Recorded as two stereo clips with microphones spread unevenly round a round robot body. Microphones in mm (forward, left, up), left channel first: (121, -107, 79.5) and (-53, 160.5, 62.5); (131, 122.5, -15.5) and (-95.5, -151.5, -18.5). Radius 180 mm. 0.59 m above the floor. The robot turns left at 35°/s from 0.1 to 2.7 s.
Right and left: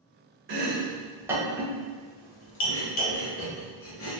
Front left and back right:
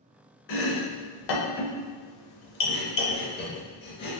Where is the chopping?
70° left, 0.6 m; by 4.2 s 10° right, 0.6 m.